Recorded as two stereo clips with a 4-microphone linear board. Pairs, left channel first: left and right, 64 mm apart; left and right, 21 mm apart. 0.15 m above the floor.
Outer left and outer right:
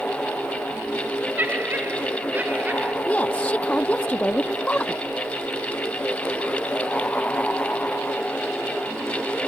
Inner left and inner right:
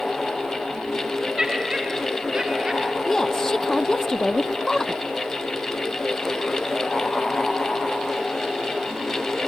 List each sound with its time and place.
1.4 s laughter: 30° right (ahead or behind); by 3.0 s 25° right (ahead or behind)
3.0 s a woman speaking: 20° left (ahead or behind)